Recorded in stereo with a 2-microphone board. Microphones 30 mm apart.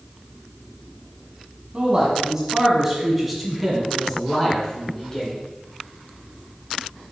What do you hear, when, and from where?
1.7 s a man speaking: 30° right (ahead or behind), 1.7 m; by 5.3 s 25° left (ahead or behind), 2.5 m